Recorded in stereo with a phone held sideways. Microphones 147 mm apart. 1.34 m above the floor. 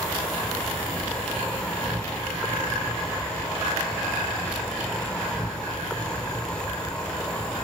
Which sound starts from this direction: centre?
An insect, at 0.0 s.